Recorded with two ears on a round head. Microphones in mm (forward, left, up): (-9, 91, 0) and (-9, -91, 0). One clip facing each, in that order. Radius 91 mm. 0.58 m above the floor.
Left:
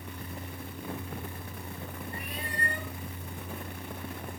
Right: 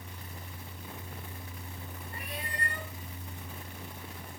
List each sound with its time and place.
2.1 s a cat meowing: 40° left (ahead or behind), 5.5 m